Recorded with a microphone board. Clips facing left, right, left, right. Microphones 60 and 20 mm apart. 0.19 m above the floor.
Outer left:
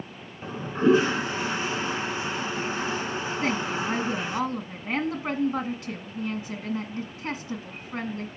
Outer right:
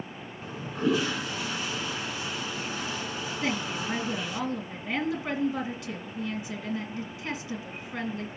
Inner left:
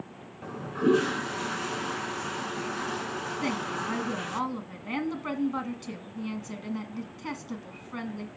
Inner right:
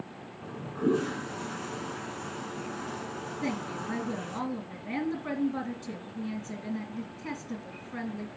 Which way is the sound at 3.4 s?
35° left (ahead or behind).